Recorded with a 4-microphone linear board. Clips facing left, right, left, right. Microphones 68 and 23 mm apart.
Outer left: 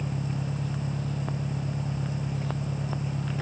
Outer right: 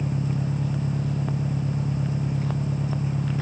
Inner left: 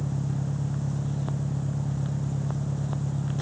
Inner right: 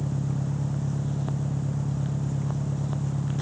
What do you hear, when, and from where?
0.0 s an engine running: 25° right (ahead or behind)